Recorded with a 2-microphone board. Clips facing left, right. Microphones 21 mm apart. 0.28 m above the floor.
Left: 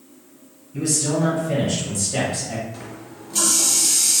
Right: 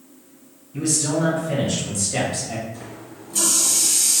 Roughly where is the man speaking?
Centre.